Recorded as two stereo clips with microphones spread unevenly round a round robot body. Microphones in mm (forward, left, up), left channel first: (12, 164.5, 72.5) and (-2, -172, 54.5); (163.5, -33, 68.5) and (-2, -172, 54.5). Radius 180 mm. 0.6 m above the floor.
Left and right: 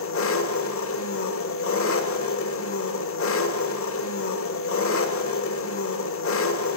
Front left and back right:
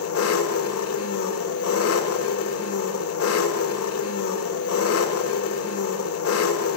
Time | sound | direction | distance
0.0 | an engine running | 35° left | 1.2 m